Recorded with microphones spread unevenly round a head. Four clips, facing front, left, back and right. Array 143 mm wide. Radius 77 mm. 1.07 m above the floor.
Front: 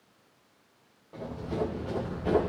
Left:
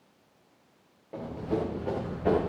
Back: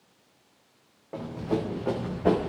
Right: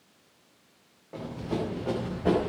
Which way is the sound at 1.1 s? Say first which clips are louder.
Left 1 dB, back 4 dB; 165° left.